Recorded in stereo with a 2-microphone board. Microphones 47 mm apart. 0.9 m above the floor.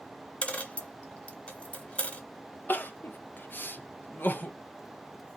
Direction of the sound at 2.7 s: 45° left (ahead or behind).